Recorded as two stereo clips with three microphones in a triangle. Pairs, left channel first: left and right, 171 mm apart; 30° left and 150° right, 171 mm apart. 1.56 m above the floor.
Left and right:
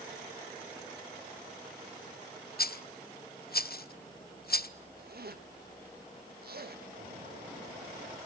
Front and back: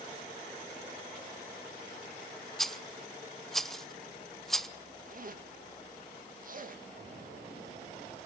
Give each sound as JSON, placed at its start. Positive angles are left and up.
{"t": 2.6, "sound": "a rattle", "azimuth_deg": 115, "distance_m": 0.6}
{"t": 5.0, "sound": "a zipper", "azimuth_deg": -115, "distance_m": 2.0}
{"t": 7.0, "sound": "an explosion", "azimuth_deg": -125, "distance_m": 7.0}